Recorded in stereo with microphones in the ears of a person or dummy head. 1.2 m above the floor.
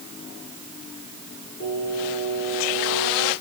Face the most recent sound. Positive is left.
turn(degrees=50)  # may be behind; listen again after turning